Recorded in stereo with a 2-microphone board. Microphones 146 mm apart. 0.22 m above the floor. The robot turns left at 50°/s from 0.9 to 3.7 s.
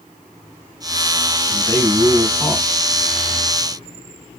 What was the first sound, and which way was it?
A man speaking, 20° left (ahead or behind).